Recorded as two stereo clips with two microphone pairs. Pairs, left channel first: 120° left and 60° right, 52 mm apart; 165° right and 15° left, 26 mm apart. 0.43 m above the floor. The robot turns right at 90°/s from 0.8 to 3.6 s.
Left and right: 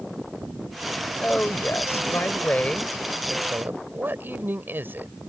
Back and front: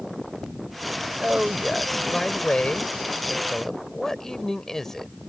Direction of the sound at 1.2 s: 55° left.